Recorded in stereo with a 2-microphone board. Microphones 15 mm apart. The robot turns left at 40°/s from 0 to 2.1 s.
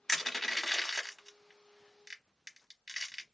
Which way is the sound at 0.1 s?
10° left (ahead or behind).